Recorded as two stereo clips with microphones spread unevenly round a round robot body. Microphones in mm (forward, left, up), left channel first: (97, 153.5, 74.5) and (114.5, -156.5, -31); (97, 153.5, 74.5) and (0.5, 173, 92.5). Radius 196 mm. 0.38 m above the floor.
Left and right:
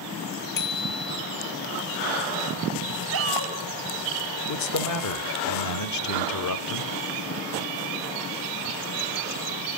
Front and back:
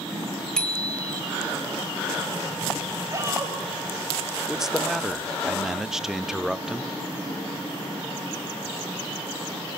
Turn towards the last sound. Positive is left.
turn(degrees=70)